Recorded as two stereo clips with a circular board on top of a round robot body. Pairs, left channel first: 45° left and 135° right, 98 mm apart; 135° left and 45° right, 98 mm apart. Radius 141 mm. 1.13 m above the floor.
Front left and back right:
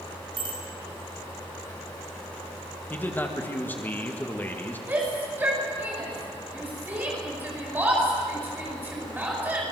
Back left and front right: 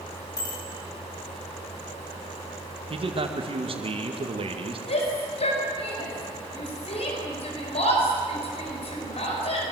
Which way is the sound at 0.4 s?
175° right.